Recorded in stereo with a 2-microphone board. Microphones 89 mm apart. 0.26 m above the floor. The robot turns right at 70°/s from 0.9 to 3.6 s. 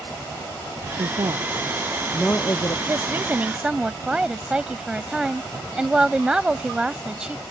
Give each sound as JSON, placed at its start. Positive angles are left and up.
{"t": 1.0, "sound": "a woman speaking", "azimuth_deg": -70}
{"t": 2.9, "sound": "a woman speaking", "azimuth_deg": -70}